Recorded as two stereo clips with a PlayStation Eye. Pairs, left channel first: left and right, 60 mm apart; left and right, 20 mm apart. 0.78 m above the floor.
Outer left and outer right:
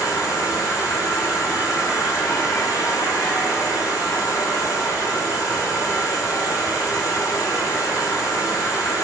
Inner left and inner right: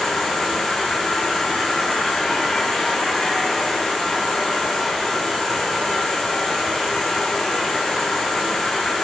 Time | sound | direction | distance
0.0 | an insect | 80° left | 3.5 m